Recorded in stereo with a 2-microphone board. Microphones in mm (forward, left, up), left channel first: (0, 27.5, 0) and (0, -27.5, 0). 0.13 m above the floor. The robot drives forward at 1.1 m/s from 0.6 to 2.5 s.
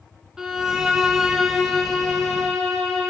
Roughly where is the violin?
Centre.